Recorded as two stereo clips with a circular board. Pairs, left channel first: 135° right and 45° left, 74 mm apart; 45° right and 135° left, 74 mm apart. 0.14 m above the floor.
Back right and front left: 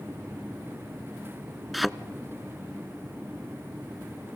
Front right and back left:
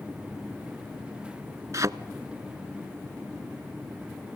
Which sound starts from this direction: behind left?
A thud, at 1.7 s.